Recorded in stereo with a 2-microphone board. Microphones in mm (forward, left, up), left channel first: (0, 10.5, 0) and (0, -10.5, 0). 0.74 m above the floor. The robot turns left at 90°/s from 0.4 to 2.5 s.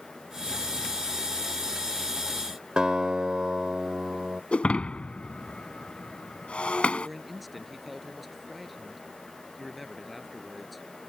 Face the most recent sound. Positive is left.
turn(degrees=0)  # may be behind; listen again after turning